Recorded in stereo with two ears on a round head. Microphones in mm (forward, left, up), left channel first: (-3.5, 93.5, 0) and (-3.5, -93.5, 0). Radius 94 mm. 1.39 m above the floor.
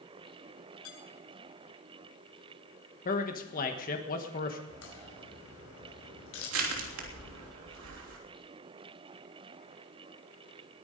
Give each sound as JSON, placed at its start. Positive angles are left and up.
{"t": 0.8, "sound": "dishes clattering", "side_deg": 75, "distance_m": 7.5}
{"t": 3.0, "sound": "a man speaking", "side_deg": 40, "distance_m": 1.3}
{"t": 4.7, "sound": "a crack", "side_deg": 75, "distance_m": 5.0}
{"t": 6.5, "sound": "crushing", "side_deg": -75, "distance_m": 3.0}